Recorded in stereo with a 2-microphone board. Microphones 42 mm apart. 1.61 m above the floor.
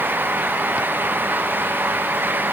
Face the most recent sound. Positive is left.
No sound to turn to.